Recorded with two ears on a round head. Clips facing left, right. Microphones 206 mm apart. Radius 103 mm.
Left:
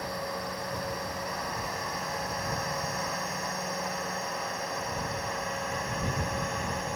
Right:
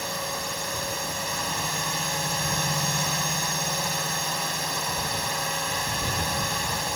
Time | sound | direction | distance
0.0 | a drone | 50° right (ahead or behind) | ?